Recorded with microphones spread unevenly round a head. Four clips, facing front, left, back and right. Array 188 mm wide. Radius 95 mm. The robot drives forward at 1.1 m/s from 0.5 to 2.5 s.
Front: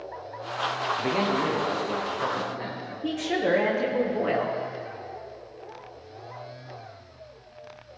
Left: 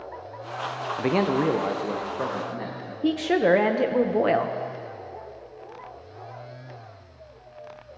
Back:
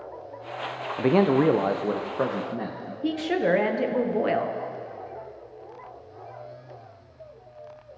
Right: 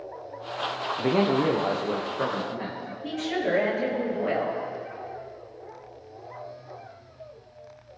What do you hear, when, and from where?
1.0 s a man speaking: 155° left, 0.6 m; by 2.9 s 175° left, 2 m
3.0 s a woman speaking: 105° left, 1.1 m